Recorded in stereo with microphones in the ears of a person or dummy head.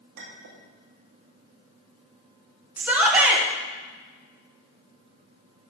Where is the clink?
75° right (ahead or behind), 1.7 m.